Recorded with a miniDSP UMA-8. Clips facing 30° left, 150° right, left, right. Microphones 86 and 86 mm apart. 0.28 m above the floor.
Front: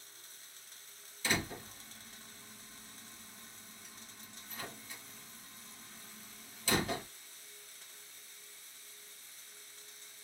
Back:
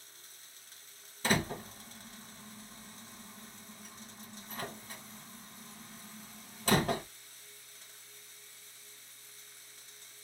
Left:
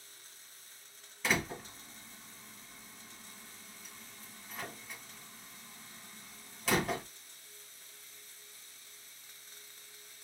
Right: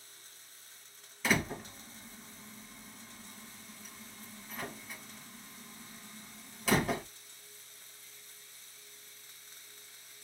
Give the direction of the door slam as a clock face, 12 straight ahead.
6 o'clock.